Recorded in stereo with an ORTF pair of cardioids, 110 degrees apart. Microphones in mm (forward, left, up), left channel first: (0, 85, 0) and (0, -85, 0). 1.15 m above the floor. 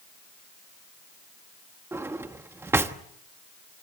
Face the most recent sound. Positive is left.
turn(degrees=-15)